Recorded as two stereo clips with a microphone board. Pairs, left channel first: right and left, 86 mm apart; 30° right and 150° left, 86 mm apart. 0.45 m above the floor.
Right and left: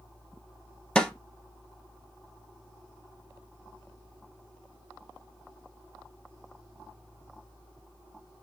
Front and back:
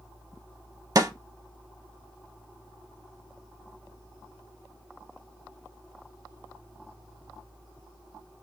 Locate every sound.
0.9 s a snare drum: 165° right, 0.7 m